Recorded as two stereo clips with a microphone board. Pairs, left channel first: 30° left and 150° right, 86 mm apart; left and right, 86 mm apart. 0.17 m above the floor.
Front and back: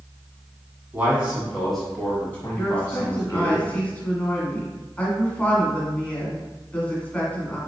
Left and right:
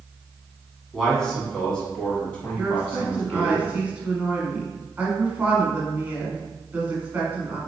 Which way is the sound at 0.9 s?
170° left.